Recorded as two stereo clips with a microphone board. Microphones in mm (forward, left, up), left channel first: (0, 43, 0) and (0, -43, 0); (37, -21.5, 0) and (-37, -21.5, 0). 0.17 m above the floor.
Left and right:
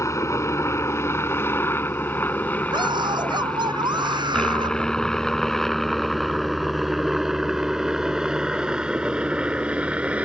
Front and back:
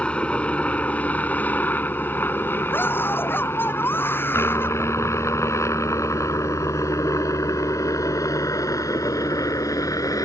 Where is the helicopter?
65° left; by 10.2 s 20° right.